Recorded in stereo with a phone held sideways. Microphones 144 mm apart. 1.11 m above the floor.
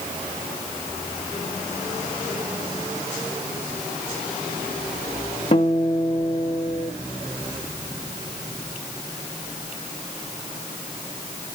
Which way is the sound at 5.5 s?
45° left (ahead or behind).